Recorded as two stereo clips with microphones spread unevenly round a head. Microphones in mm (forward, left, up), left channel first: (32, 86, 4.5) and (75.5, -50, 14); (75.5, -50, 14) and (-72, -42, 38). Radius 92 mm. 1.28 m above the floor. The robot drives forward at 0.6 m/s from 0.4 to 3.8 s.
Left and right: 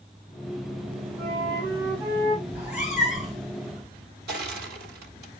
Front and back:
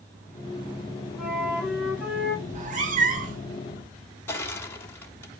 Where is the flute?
95° right, 6.5 m; by 2.4 s 105° right, 6.5 m.